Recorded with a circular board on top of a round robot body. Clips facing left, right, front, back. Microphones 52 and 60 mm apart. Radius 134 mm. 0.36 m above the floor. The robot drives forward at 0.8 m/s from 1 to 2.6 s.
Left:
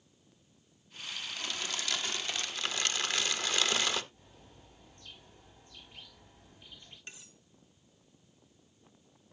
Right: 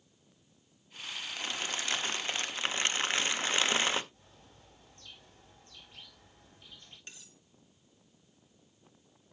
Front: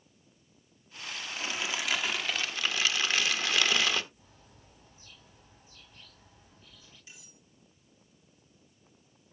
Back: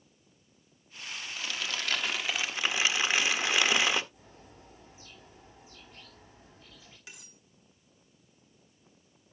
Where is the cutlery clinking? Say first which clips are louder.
Left 4 dB, back 5 dB; 165° left, 2.5 m.